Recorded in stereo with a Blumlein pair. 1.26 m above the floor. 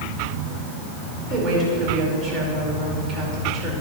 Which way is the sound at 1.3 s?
30° right.